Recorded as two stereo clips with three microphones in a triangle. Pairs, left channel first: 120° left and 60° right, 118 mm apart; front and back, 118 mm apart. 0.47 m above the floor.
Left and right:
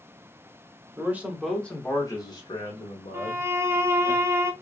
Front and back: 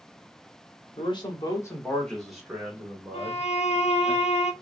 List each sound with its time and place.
1.0 s a man speaking: 5° left, 1.4 m; by 4.1 s 120° left, 2.5 m
3.1 s a violin: 10° left, 0.5 m